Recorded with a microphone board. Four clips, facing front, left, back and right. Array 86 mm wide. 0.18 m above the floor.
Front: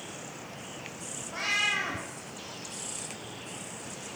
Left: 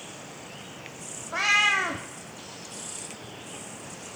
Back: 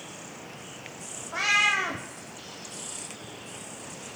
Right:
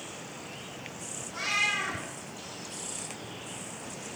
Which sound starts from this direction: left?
A cat meowing, at 1.3 s.